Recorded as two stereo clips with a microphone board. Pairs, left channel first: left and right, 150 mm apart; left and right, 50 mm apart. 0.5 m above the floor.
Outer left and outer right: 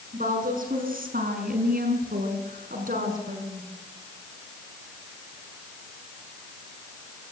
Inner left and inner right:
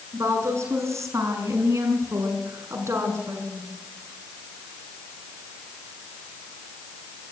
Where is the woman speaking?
70° right (ahead or behind), 6.5 m; by 3.7 s 65° right (ahead or behind), 6.5 m.